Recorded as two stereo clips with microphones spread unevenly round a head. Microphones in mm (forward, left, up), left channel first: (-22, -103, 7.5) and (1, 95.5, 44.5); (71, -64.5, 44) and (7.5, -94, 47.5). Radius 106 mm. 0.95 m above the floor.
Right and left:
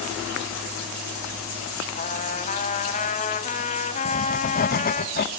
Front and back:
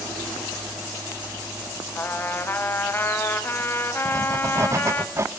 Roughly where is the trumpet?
Ahead right.